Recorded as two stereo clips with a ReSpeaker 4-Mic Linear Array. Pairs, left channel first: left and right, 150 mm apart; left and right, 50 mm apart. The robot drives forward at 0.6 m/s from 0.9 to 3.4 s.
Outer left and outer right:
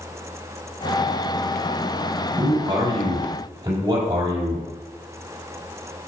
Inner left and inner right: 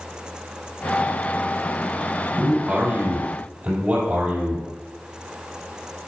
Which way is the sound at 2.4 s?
25° right (ahead or behind).